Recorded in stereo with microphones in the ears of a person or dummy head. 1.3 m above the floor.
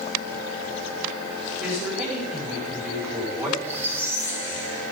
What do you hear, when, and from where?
1.6 s a man speaking: 5° right (ahead or behind), 5 m
3.6 s a squeak: 10° right (ahead or behind), 3 m